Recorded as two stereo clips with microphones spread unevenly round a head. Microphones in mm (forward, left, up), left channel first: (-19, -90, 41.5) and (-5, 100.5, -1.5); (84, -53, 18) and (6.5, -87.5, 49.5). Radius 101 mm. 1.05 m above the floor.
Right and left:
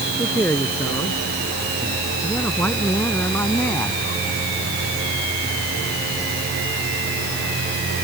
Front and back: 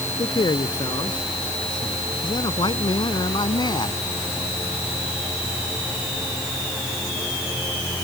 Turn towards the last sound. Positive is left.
turn(degrees=-15)